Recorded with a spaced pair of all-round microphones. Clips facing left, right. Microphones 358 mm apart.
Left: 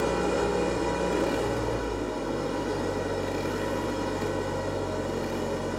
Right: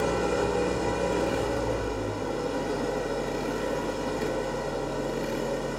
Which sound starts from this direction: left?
An engine running, at 0.0 s.